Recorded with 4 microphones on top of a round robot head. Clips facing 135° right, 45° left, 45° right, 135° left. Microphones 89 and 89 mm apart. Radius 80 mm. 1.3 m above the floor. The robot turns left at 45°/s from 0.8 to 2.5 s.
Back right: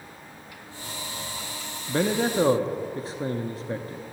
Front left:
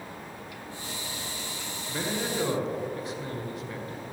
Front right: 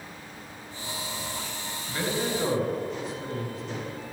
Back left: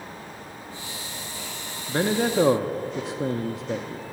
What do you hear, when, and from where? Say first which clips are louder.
1.9 s a man speaking: back right 8 dB, back left 6 dB; 165° right, 0.8 m; by 4.0 s 165° left, 0.8 m